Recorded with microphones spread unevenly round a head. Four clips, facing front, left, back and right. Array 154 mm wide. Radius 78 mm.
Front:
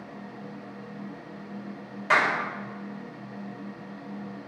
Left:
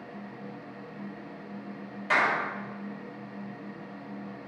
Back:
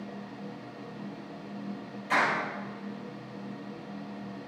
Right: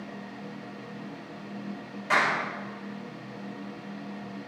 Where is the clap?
Straight ahead, 5 m.